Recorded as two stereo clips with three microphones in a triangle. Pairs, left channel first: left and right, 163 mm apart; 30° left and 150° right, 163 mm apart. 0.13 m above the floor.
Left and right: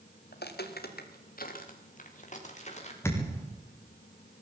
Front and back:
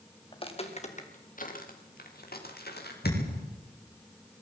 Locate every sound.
0.3 s footsteps: 90° left, 3.5 m; by 2.9 s 45° left, 6 m
3.0 s a thud: 15° left, 6.5 m